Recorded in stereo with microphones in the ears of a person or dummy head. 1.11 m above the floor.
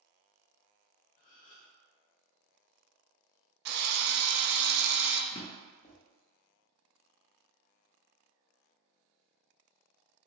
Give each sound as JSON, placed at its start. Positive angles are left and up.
{"t": 1.2, "sound": "a gasp", "side_deg": 40, "distance_m": 0.7}
{"t": 3.6, "sound": "a drill", "side_deg": -50, "distance_m": 0.5}
{"t": 5.3, "sound": "a drawer", "side_deg": 20, "distance_m": 0.7}